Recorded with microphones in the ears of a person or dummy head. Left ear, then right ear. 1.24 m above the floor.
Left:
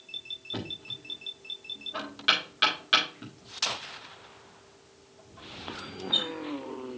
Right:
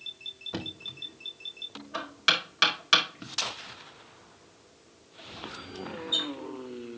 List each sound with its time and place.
0.5 s knocking: 30° right (ahead or behind), 1.8 m